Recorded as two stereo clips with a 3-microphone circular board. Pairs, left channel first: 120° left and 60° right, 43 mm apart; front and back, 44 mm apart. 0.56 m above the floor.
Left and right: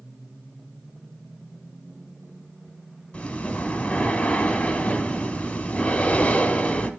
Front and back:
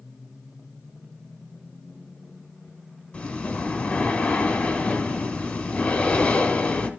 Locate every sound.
3.1 s breathing: 55° left, 1.7 m